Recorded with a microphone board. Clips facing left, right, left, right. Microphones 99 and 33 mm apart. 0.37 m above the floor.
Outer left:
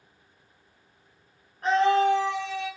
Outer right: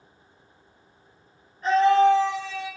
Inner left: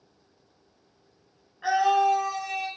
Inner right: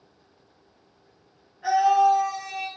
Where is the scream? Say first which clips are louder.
Outer right 3 dB, inner right 3 dB; 55° left (ahead or behind), 4 m; by 2.7 s 45° left (ahead or behind), 3.5 m.